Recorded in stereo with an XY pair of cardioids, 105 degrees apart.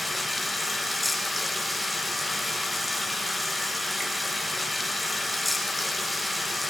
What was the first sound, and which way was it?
Running water, 10° left.